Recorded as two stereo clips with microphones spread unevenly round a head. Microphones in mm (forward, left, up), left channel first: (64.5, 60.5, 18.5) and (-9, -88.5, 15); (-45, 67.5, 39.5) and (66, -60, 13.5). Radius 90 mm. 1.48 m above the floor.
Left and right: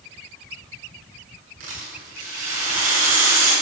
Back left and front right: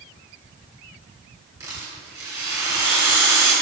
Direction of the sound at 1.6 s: 125° right.